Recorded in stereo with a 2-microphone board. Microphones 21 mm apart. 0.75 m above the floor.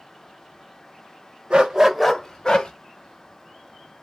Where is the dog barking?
50° right (ahead or behind), 0.7 m; by 2.7 s 45° left (ahead or behind), 1.1 m.